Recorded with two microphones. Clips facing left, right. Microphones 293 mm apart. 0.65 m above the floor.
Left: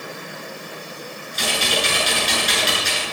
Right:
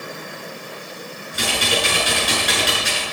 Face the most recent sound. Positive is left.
turn(degrees=-65)  # may be behind; listen again after turning